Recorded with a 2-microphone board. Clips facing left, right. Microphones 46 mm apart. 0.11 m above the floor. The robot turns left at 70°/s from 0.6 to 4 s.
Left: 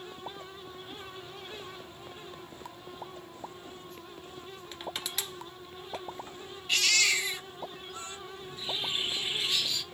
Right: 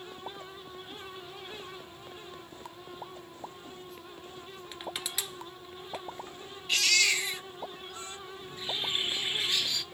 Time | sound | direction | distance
4.7 | crushing | centre (ahead or behind) | 1.1 m
6.7 | a baby crying | centre (ahead or behind) | 1.9 m
8.4 | a bird | 30° right (ahead or behind) | 1.9 m